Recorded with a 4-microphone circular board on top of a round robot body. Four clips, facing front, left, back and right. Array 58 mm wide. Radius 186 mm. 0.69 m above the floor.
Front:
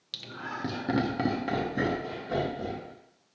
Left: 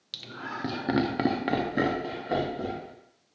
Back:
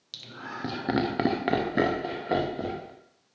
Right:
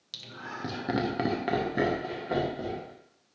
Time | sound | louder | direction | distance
0.1 | laughter | left 3 dB, front 1 dB | 50° left | 0.8 m